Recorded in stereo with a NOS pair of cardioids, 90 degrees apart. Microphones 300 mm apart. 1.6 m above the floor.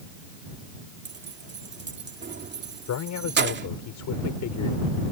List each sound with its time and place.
1.1 s keys jangling: 40° right
2.9 s a man speaking: 70° left